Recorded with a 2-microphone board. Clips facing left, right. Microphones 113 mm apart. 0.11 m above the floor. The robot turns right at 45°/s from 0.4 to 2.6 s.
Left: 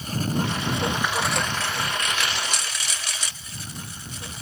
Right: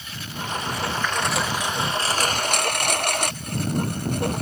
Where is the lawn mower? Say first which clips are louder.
Left 8 dB; 140° left; by 4.4 s 120° right.